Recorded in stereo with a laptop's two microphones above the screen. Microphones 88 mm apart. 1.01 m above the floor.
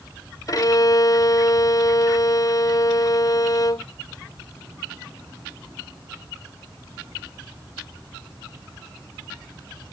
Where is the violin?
45° left (ahead or behind).